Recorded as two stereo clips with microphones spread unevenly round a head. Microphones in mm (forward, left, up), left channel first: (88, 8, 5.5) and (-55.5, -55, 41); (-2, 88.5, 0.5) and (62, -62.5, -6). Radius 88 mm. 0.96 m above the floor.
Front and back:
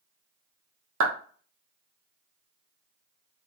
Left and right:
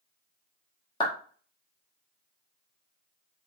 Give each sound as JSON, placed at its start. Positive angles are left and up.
{"t": 1.0, "sound": "a clap", "azimuth_deg": 180, "distance_m": 0.9}